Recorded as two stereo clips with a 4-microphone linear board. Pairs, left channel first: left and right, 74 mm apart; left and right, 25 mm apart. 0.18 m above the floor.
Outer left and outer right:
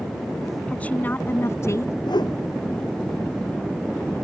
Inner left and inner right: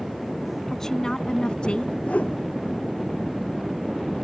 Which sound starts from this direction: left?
A whoosh, at 2.1 s.